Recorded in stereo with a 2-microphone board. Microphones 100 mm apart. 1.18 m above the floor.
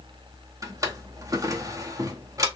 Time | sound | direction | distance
0.6 | a drawer | 35° right (ahead or behind) | 0.7 m